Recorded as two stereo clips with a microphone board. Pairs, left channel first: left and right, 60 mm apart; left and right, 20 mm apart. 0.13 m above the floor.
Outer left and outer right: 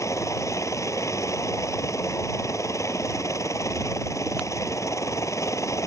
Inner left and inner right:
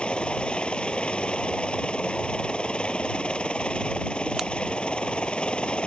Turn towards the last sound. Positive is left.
turn(degrees=55)  # may be behind; listen again after turning